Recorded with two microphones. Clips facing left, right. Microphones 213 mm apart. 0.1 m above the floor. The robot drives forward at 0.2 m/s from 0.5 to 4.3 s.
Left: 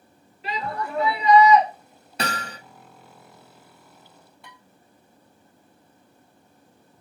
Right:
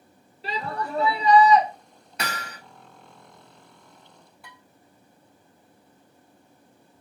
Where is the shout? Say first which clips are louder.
Left 1 dB; 35° right (ahead or behind), 1.6 m.